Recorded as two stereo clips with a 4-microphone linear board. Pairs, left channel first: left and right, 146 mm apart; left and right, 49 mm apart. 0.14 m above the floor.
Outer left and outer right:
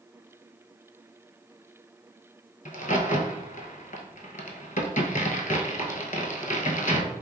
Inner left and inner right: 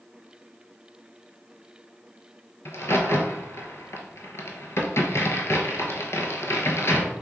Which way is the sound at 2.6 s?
60° left (ahead or behind).